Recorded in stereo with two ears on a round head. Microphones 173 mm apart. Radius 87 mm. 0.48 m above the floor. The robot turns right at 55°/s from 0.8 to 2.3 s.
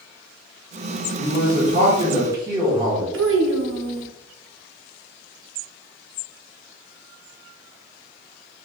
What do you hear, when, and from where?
1.1 s a man speaking: 90° right, 1.4 m; by 3.0 s 30° right, 1.4 m
3.1 s a child speaking: 70° right (ahead or behind), 0.7 m